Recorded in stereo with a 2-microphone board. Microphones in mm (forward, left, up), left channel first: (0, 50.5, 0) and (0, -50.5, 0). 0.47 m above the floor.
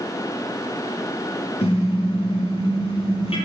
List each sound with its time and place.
1.6 s a car horn: 75° left (ahead or behind), 6.5 m; by 3.4 s 65° left (ahead or behind), 7 m